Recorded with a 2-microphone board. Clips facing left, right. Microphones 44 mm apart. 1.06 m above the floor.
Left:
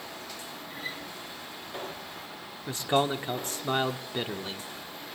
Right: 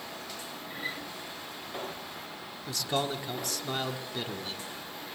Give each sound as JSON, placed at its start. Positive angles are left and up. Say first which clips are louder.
{"t": 0.7, "sound": "a guitar", "louder": "right 2 dB", "side_deg": -25, "distance_m": 5.0}
{"t": 2.7, "sound": "a man speaking", "louder": "left 5 dB", "side_deg": 35, "distance_m": 1.2}